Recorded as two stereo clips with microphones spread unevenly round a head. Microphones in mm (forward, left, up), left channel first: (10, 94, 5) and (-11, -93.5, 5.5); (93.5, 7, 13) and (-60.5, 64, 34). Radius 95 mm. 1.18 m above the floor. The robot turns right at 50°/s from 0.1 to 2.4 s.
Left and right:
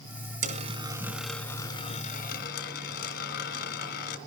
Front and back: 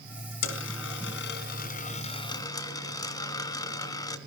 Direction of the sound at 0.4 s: 50° right.